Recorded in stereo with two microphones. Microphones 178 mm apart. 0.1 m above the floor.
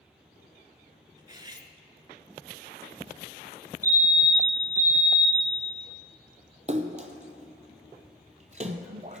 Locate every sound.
1.2 s cutlery clinking: 25° right (ahead or behind), 0.7 m
3.8 s a fire alarm: 20° right (ahead or behind), 2 m
6.7 s a splash: 45° right (ahead or behind), 0.7 m